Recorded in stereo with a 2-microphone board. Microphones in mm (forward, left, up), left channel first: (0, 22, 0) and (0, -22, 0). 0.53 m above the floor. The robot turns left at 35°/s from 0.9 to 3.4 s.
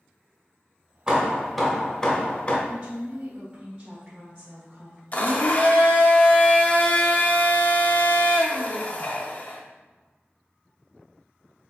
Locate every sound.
1.1 s hammering: 165° right, 0.8 m; by 2.6 s 140° left, 0.8 m
2.7 s a woman speaking: 40° right (ahead or behind), 0.9 m; by 5.0 s 35° right (ahead or behind), 0.9 m
5.1 s a blender: 35° left (ahead or behind), 0.5 m